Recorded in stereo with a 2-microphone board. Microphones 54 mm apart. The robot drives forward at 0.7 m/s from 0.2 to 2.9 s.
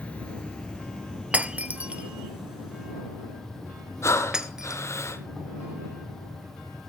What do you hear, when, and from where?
0.0 s an insect: 20° left (ahead or behind), 1.2 m; by 6.9 s 10° left (ahead or behind), 3 m
1.3 s breaking glass: 30° right (ahead or behind), 0.6 m; by 4.8 s 15° right (ahead or behind), 1.2 m
4.0 s breathing: 60° left (ahead or behind), 1.1 m